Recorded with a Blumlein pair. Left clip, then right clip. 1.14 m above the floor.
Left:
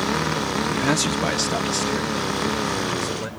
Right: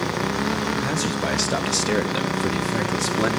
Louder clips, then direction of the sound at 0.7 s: Left 3 dB; 25° left.